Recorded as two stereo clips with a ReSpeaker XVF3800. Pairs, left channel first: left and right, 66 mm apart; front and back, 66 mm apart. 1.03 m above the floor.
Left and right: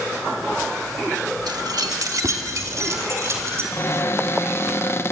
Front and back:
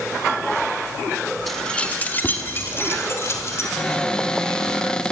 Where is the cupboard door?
70° left, 0.8 m.